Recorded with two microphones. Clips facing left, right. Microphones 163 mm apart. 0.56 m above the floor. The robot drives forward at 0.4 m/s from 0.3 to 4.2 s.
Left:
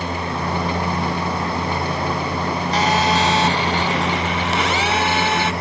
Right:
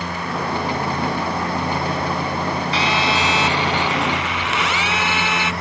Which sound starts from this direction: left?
A phone buzzing, at 2.7 s.